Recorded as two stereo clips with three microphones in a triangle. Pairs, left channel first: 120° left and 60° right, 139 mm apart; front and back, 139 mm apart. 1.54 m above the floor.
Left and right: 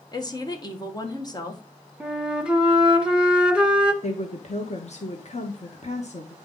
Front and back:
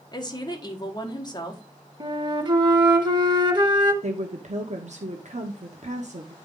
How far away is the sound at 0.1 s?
About 1.7 m.